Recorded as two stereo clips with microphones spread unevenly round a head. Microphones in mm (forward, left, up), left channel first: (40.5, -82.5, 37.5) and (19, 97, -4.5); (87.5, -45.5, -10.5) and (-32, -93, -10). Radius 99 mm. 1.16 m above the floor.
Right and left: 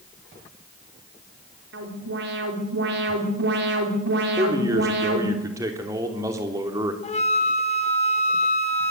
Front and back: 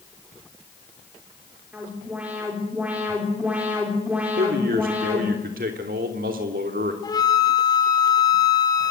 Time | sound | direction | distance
1.7 | an alarm | 120° left | 4.5 m
4.4 | a man speaking | 170° left | 3 m
7.0 | a flute | 35° right | 3.5 m